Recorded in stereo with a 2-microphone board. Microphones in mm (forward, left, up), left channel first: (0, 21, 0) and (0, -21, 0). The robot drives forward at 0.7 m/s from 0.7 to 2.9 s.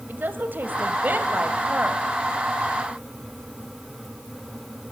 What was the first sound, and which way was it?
A woman speaking, 50° right (ahead or behind).